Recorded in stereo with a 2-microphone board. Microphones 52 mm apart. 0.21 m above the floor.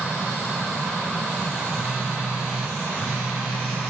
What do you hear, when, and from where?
1.7 s a phone buzzing: 30° right (ahead or behind), 2 m